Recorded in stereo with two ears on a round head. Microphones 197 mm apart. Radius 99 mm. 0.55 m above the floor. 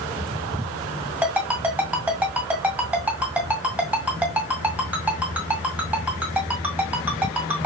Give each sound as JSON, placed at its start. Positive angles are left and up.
{"t": 1.2, "sound": "a ringtone", "side_deg": -10, "distance_m": 1.8}